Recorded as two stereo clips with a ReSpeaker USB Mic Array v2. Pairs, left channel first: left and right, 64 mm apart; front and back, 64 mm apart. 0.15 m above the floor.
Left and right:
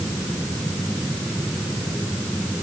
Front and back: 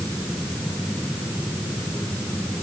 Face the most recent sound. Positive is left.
No sound to turn to.